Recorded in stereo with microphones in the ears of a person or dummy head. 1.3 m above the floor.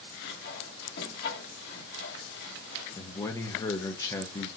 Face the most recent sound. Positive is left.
turn(degrees=20)  # may be behind; listen again after turning